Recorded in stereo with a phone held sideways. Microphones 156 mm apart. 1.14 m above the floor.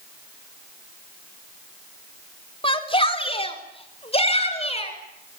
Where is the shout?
35° left (ahead or behind), 4 m; by 5.4 s 40° left (ahead or behind), 8 m.